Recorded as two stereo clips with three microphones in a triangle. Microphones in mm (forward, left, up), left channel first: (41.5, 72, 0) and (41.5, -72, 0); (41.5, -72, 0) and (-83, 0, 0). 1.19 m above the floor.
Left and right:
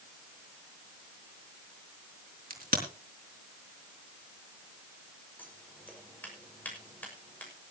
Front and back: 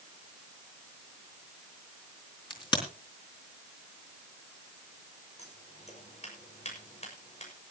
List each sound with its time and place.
2.5 s a crack: 90° right, 4 m
5.4 s scissors: 10° left, 6 m